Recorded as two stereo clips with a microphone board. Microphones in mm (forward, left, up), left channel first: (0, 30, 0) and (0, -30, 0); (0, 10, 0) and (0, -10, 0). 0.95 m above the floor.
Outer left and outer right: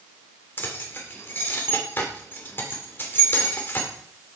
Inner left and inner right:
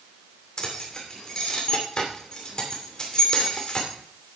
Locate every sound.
0.6 s keys jangling: 35° left (ahead or behind), 2.5 m